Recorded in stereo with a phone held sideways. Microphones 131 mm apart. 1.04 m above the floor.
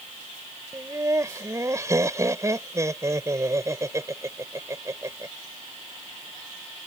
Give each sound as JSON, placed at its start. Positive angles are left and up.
{"t": 0.7, "sound": "laughter", "side_deg": -25}